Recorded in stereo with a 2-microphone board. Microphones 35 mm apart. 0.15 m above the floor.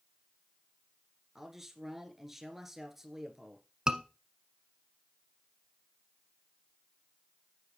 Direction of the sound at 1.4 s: 10° right (ahead or behind).